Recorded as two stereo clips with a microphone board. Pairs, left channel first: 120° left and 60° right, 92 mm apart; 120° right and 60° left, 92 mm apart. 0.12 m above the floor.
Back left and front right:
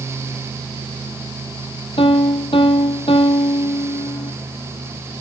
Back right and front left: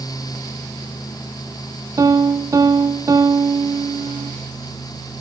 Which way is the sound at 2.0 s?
110° left.